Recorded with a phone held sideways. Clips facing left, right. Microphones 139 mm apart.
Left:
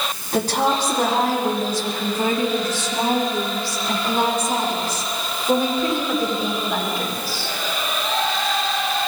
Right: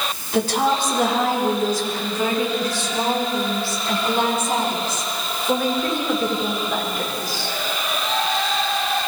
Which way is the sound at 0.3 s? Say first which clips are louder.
Even; 40° left (ahead or behind).